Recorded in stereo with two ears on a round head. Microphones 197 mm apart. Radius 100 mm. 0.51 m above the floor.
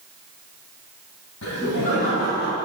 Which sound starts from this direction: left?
Laughter, at 1.4 s.